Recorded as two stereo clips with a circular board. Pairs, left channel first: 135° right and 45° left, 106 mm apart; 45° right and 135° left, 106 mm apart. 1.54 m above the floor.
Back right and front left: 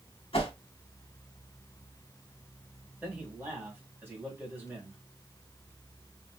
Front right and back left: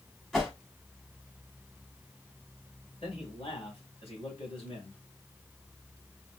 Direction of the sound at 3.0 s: 25° right.